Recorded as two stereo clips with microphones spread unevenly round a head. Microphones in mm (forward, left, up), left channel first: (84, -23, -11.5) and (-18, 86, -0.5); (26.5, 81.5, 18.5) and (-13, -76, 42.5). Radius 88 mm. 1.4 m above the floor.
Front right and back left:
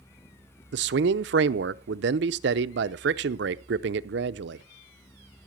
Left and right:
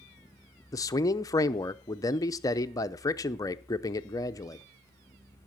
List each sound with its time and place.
0.7 s a man speaking: 150° left, 0.6 m